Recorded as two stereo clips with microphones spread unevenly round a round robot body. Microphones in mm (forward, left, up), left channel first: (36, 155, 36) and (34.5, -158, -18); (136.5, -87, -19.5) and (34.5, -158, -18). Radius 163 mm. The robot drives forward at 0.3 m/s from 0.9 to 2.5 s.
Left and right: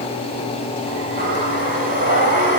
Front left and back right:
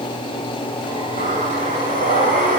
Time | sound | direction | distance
1.2 | breathing | 155° right | 8.5 m